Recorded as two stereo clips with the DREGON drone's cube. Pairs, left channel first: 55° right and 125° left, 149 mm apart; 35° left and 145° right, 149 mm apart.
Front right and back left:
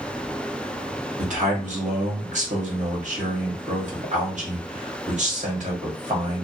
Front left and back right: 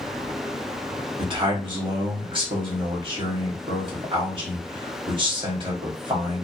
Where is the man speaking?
160° left, 1.4 m.